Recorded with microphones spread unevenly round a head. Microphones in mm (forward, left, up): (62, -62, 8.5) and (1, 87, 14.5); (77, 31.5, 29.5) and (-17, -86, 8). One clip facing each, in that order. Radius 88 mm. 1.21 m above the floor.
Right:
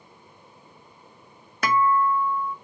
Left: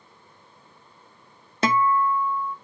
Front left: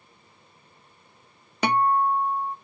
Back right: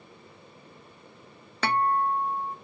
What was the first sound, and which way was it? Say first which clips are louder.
A guitar: even, front left 3 dB; 120° left.